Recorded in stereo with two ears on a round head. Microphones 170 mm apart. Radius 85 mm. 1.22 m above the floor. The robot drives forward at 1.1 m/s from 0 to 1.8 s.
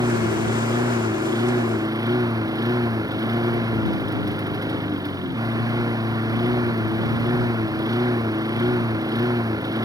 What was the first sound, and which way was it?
A lawn mower, 20° right (ahead or behind).